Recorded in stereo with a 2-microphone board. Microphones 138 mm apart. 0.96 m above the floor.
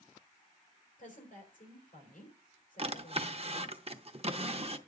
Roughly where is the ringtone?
No ringtone in this recording.